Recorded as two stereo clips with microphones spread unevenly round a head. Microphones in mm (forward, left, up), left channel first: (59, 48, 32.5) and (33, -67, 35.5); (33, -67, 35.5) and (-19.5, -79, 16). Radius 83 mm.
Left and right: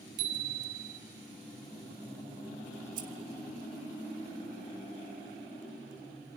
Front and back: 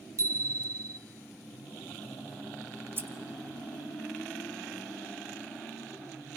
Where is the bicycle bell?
135° right, 3 m.